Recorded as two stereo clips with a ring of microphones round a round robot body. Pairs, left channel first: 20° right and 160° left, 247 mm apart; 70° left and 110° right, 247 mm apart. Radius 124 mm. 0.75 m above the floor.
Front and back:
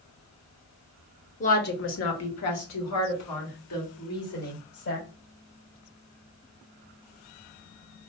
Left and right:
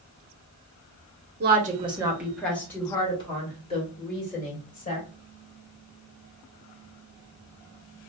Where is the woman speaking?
75° right, 0.9 m; by 5.1 s 5° left, 3 m.